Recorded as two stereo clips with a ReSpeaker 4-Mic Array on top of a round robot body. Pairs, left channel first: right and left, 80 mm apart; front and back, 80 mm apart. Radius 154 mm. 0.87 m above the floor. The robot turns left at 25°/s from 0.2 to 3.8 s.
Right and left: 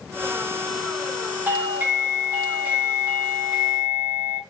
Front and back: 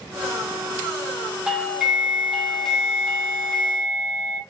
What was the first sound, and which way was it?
A doorbell, 110° left.